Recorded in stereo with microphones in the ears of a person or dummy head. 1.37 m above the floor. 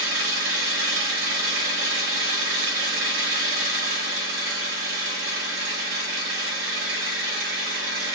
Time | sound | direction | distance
0.0 | an engine running | 65° right (ahead or behind) | 1.4 m